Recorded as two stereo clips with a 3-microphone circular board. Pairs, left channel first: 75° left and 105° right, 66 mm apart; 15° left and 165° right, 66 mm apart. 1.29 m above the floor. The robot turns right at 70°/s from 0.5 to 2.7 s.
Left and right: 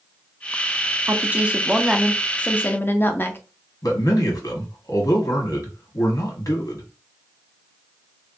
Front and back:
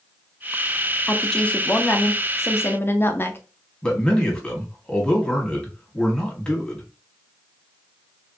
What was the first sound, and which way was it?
A woman speaking, 70° right.